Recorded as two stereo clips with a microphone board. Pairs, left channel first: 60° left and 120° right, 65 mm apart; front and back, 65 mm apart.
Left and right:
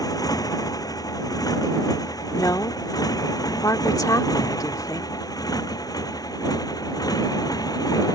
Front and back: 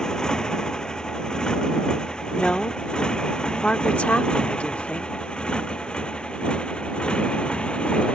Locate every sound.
0.0 s a motorcycle: 80° left; by 8.2 s 75° left
2.4 s a woman speaking: 70° left